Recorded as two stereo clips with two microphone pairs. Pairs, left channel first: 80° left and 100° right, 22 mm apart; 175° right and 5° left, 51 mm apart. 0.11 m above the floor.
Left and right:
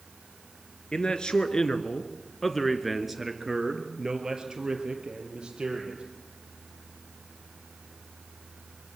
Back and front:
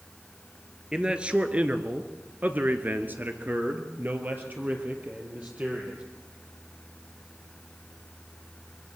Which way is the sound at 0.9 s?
70° left.